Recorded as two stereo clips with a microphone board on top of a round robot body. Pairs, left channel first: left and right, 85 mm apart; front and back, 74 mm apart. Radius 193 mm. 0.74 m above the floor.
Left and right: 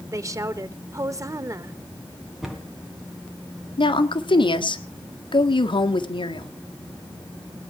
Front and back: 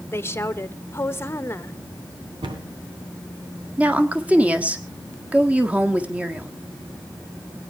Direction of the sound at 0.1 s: 50° right.